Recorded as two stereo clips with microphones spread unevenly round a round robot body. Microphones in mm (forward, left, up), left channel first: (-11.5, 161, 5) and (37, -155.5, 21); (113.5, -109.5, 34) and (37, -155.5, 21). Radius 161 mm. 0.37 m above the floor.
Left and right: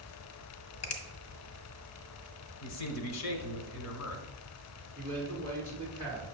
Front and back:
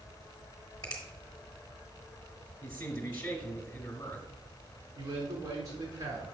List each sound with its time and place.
0.8 s a finger snap: 85° left, 1.1 m
2.6 s a man speaking: 85° left, 1.3 m
5.0 s a man speaking: 175° right, 3.5 m